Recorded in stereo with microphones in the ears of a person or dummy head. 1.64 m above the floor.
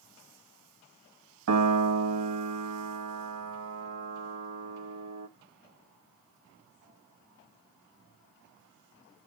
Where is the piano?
80° right, 1.3 m.